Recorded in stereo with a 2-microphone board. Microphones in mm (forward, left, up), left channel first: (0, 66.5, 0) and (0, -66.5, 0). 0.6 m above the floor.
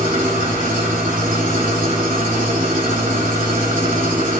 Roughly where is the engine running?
Right.